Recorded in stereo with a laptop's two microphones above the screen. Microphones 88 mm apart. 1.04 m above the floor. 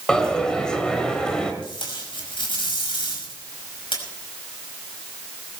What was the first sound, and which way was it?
A dropped coin, 10° left (ahead or behind).